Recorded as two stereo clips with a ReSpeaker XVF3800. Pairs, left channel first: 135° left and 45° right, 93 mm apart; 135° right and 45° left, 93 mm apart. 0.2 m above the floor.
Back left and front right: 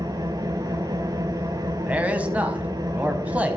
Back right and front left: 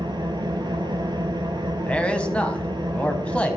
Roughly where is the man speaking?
Right.